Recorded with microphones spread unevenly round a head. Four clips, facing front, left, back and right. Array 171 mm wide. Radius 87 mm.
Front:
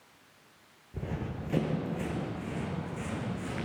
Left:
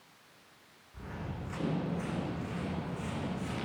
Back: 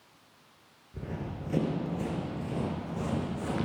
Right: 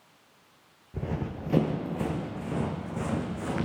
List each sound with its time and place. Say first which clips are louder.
0.9 s running footsteps: right 9 dB, front 1 dB; 80° right, 4.5 m; by 3.7 s 130° right, 5.5 m